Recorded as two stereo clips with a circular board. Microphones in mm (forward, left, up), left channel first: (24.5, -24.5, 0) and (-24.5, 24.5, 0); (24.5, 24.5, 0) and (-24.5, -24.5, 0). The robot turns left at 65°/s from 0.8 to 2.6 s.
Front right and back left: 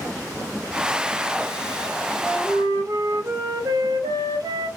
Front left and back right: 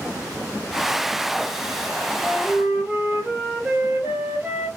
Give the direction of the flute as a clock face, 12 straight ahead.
6 o'clock.